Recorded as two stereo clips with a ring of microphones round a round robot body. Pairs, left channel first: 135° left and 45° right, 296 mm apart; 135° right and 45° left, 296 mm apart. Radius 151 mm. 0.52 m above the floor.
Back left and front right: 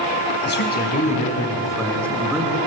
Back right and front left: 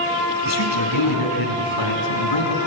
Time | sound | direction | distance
0.5 | a man speaking | 170° right | 4.5 m